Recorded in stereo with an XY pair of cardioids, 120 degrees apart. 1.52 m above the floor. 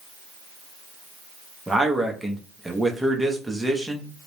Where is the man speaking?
5° right, 0.6 m.